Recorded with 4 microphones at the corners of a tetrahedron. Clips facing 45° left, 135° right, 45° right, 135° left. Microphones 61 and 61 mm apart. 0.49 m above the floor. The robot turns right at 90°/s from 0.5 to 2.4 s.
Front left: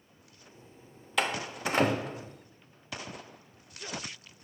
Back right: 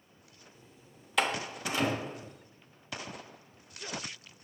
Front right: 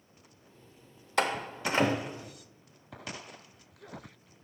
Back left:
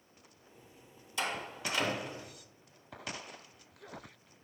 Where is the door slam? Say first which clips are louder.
Even, front right 7 dB; 50° right, 0.7 m; by 2.3 s 50° left, 0.7 m.